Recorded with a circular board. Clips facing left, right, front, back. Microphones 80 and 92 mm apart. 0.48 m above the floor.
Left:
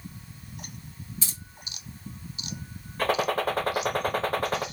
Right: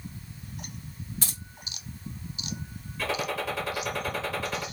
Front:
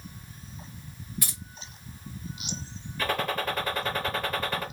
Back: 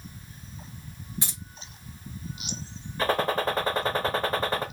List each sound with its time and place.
1.2 s keys jangling: 120° right, 1.5 m
3.0 s a gunshot: 125° left, 1.0 m